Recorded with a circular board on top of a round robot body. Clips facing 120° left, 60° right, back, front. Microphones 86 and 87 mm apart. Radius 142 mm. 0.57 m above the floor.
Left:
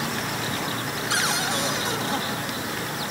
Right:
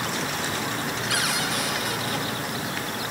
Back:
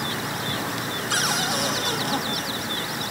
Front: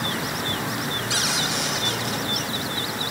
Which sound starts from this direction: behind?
A cupboard door, at 1.1 s.